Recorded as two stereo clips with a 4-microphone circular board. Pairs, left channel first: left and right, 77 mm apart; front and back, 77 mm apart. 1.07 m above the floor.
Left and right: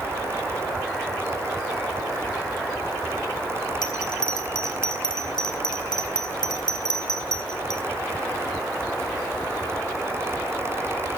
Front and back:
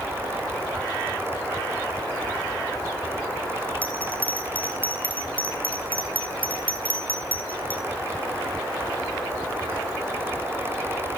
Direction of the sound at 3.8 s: 70° left.